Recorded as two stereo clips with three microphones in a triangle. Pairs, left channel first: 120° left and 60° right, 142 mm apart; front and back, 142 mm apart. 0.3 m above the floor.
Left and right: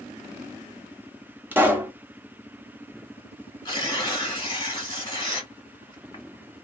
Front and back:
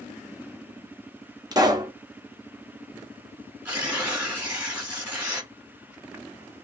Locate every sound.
1.5 s a pop: 130° right, 0.9 m
3.6 s tearing paper: 110° left, 1.7 m